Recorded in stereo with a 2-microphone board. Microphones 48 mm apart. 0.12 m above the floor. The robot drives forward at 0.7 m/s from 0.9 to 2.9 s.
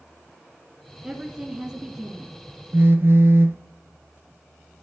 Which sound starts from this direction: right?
A phone buzzing, at 2.7 s.